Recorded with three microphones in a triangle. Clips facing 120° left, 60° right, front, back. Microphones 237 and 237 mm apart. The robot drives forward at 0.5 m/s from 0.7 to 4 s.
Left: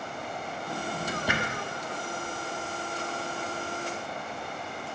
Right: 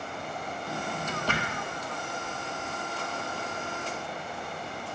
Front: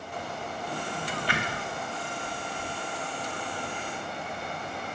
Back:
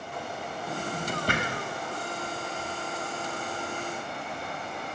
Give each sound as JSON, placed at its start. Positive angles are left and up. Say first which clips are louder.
{"t": 0.7, "sound": "a drawer", "louder": "left 2 dB, back 4 dB", "azimuth_deg": -150, "distance_m": 0.6}